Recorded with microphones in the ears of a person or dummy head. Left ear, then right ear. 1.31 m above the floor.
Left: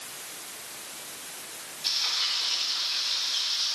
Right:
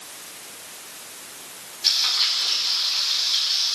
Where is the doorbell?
I don't hear a doorbell.